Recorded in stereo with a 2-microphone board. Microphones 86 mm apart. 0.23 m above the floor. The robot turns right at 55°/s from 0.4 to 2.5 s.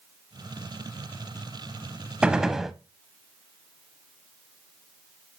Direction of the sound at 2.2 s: 10° right (ahead or behind).